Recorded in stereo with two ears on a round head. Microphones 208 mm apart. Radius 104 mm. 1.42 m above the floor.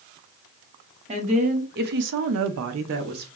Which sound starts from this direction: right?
A woman speaking, at 1.1 s.